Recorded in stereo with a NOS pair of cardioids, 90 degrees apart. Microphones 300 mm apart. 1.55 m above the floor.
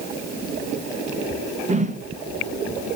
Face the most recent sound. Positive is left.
turn(degrees=-25)